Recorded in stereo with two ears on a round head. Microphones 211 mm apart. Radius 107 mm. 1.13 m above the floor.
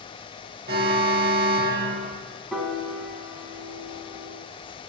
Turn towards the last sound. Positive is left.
turn(degrees=0)  # may be behind; listen again after turning